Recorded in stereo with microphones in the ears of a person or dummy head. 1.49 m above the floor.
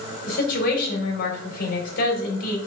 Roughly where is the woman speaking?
Left.